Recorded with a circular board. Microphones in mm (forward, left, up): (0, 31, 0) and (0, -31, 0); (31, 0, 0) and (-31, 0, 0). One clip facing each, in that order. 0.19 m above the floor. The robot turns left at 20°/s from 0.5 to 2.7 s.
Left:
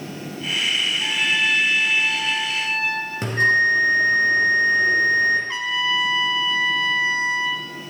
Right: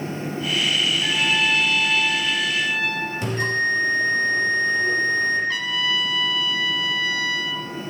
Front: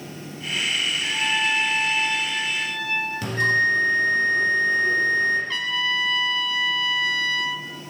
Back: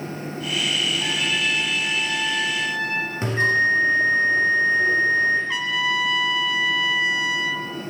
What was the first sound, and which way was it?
A trumpet, straight behind.